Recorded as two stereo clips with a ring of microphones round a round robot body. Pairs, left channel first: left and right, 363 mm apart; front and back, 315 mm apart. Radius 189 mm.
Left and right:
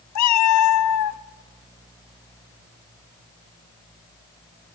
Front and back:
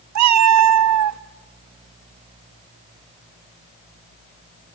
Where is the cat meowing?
140° left, 0.6 m.